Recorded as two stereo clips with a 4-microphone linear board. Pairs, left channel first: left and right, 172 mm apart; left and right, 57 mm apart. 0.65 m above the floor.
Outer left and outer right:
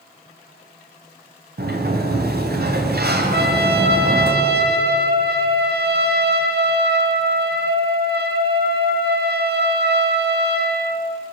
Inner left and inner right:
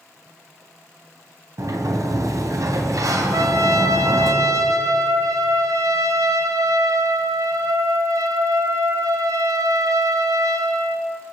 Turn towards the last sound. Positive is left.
turn(degrees=-75)  # may be behind; listen again after turning